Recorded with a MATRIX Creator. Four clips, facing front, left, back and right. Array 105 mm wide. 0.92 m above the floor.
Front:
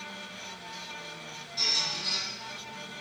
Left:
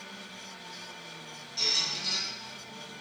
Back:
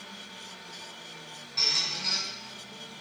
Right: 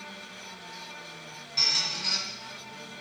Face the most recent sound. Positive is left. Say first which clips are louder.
# right 2 dB, even
turn(degrees=-110)